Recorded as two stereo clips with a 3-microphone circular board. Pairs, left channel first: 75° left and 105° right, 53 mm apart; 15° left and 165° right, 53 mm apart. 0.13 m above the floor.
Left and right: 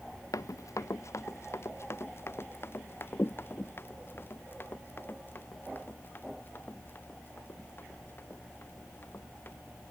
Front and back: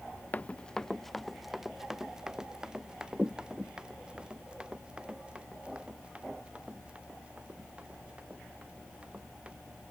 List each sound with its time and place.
0.3 s running footsteps: 70° left; by 9.6 s 125° left